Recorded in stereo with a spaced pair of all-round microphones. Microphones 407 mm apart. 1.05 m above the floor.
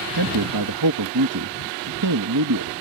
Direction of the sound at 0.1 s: 60° right (ahead or behind).